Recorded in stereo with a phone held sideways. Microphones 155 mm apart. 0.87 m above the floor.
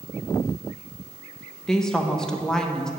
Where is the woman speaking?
5° left (ahead or behind), 0.7 m.